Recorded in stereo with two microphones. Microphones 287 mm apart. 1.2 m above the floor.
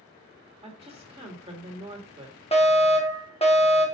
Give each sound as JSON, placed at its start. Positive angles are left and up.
{"t": 0.6, "sound": "a woman speaking", "side_deg": -20, "distance_m": 2.0}
{"t": 2.5, "sound": "a fire alarm", "side_deg": 20, "distance_m": 1.6}